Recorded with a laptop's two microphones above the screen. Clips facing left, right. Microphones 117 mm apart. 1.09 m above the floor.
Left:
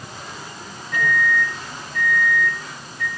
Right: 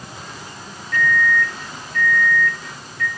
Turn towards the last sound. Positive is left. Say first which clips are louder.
# right 2 dB
turn(degrees=15)  # may be behind; listen again after turning